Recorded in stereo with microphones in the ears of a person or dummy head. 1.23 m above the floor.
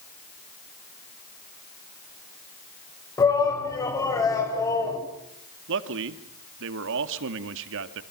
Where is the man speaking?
75° right (ahead or behind), 2 m.